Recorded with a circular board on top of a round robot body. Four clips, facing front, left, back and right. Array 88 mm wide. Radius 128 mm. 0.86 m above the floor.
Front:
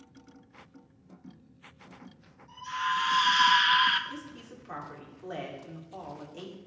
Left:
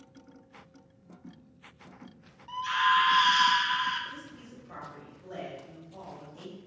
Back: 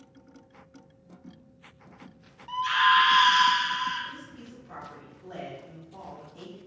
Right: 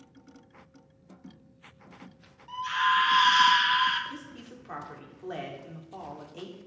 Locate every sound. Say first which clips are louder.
2.5 s a scream: even, back 9 dB; 170° left, 1.0 m; by 4.0 s 20° right, 0.8 m
4.1 s a woman speaking: right 2 dB, front 1 dB; 55° right, 3 m